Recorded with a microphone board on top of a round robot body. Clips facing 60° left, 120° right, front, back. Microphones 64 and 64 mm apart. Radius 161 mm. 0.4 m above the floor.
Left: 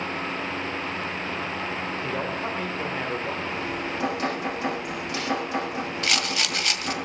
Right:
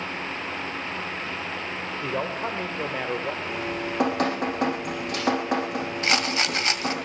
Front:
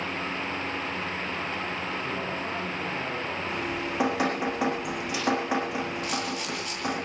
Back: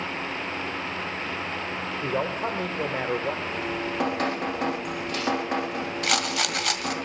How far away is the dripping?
About 7.5 m.